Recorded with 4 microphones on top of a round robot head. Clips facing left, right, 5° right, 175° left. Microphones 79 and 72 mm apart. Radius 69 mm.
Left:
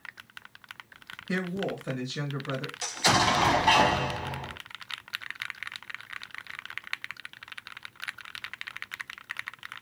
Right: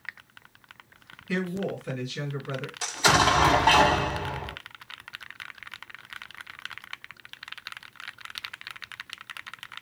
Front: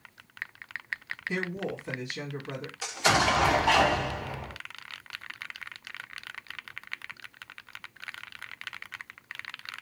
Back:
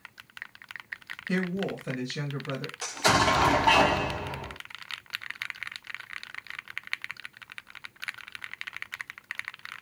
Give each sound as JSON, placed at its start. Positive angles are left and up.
{"t": 1.3, "sound": "a woman speaking", "azimuth_deg": 160, "distance_m": 1.8}
{"t": 2.8, "sound": "an explosion", "azimuth_deg": -130, "distance_m": 1.4}